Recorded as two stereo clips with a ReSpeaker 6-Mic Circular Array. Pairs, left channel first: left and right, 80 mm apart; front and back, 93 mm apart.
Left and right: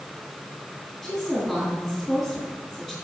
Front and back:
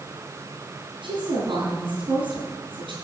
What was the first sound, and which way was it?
A woman speaking, straight behind.